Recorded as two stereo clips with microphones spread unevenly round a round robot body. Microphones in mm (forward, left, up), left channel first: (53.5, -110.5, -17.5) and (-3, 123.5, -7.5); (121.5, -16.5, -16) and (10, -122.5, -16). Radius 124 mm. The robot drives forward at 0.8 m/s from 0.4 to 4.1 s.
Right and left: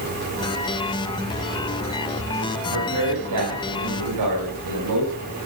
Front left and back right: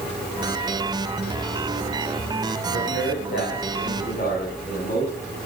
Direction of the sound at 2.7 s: 90° left.